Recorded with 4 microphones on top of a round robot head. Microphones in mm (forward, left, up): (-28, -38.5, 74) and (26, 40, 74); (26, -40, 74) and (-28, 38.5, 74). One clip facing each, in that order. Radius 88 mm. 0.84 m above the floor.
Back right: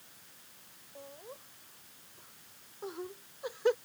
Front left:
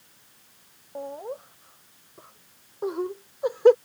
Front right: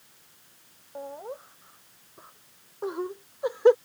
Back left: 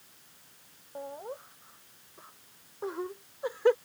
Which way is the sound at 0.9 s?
25° left.